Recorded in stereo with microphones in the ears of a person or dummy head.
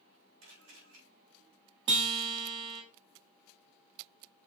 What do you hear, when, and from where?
0.4 s a camera shutter: 85° right, 4 m
1.9 s a guitar: 30° right (ahead or behind), 1.3 m